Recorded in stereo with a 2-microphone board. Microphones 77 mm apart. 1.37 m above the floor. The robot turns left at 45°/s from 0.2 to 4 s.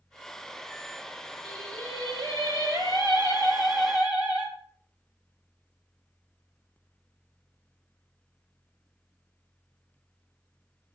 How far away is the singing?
About 4 m.